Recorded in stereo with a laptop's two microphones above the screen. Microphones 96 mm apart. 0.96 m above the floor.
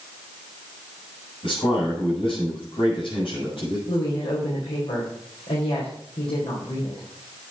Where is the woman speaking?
80° left, 4 m.